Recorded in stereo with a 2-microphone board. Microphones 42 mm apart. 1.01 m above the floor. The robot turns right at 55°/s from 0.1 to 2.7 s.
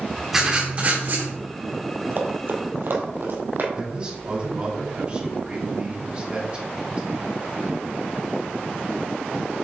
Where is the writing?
170° right, 2 m; by 1.3 s 115° right, 2 m.